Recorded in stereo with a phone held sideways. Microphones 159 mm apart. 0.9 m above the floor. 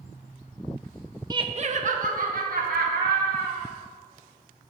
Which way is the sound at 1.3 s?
25° right (ahead or behind).